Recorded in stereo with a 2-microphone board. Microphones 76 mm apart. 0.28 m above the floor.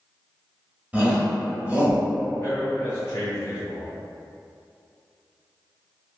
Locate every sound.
0.9 s a shout: 20° right (ahead or behind), 0.9 m
2.4 s a man speaking: 30° left (ahead or behind), 1.3 m